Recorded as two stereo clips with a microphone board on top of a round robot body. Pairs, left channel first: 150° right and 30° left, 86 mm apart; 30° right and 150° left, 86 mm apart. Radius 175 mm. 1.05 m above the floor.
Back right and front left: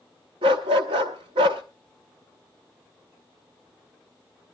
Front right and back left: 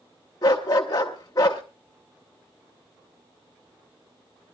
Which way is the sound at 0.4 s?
20° left.